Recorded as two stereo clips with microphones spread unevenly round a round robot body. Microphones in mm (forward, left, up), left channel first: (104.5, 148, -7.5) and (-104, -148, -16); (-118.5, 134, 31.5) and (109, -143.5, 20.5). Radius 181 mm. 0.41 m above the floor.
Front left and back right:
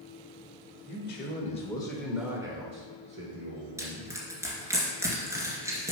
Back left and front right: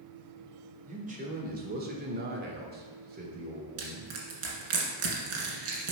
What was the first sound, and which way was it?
A man speaking, 10° left.